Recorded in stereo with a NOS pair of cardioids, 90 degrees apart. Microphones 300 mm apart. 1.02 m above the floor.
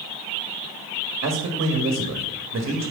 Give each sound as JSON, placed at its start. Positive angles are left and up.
{"t": 1.2, "sound": "a man speaking", "azimuth_deg": -45, "distance_m": 1.5}